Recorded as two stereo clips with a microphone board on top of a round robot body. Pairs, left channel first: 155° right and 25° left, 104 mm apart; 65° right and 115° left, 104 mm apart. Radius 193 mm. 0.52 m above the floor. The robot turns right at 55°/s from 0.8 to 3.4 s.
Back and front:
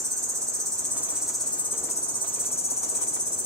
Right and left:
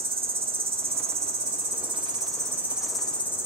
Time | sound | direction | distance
0.0 | an insect | 85° left | 2.5 m